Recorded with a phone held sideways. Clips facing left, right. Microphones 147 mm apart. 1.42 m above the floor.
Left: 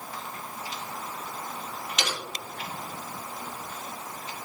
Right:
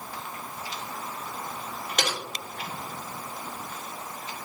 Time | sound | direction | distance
2.0 | typing on a keyboard | 50° right (ahead or behind) | 3.5 m